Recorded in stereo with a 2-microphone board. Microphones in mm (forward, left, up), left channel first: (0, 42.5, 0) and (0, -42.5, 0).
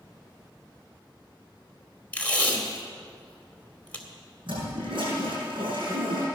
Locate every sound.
2.1 s tape being pulled: 20° left (ahead or behind), 2 m
4.5 s a toilet flushing: 80° right, 6.5 m